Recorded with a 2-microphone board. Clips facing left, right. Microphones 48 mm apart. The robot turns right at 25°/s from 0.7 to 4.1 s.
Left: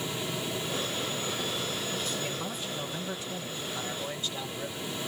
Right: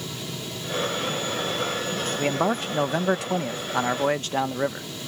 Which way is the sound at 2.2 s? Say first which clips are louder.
Right 11 dB; 115° right.